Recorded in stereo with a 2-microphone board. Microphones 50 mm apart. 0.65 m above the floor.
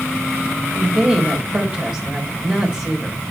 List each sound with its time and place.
0.8 s a woman speaking: 25° right (ahead or behind), 3.5 m